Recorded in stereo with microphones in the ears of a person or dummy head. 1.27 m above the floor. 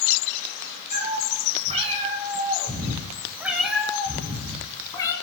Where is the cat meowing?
45° right (ahead or behind), 4 m; by 5.1 s 20° left (ahead or behind), 3.5 m.